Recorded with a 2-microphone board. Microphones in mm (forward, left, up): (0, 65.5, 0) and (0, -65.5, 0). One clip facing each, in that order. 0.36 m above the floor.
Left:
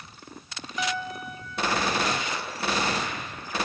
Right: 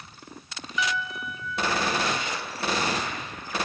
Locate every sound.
0.8 s a piano: 45° left (ahead or behind)